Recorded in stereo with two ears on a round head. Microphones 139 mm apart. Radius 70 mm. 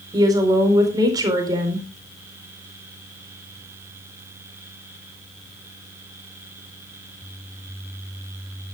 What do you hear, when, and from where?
0.1 s a woman speaking: 25° right (ahead or behind), 4 m